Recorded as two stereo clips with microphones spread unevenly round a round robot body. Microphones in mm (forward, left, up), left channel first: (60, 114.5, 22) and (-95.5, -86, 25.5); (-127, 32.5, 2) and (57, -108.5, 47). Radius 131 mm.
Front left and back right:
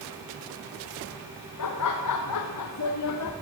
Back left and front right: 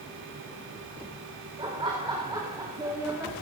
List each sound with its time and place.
1.6 s laughter: 40° left, 2.5 m; by 3.3 s 50° left, 1.7 m